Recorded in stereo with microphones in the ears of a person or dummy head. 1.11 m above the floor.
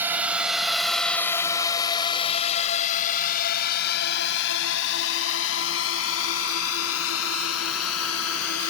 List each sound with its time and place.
0.0 s a drone: 20° right (ahead or behind); by 8.7 s 80° left